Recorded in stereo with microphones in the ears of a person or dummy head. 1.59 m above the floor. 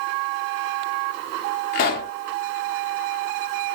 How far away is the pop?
About 0.6 m.